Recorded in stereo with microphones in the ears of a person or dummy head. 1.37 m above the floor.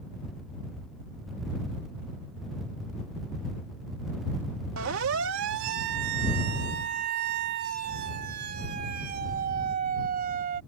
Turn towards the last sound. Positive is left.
turn(degrees=-45)  # may be behind; listen again after turning